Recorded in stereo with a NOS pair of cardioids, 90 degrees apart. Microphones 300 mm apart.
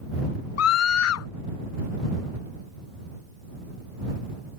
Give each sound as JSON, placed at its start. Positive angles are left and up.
{"t": 0.6, "sound": "a scream", "azimuth_deg": 55}